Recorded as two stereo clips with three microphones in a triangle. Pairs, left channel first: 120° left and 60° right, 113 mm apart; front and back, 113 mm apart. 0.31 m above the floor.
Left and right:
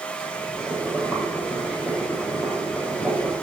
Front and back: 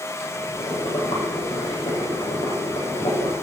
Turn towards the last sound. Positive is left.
turn(degrees=20)